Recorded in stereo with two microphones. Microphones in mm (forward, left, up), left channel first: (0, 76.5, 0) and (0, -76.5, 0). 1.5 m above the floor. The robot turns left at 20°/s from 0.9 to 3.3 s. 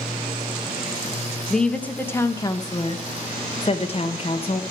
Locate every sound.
1.5 s a woman speaking: 175° left, 1.1 m; by 4.6 s 140° left, 1.1 m